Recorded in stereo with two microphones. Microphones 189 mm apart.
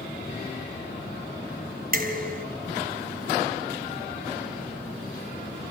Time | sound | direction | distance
1.9 | dishes clattering | 50° right (ahead or behind) | 3.5 m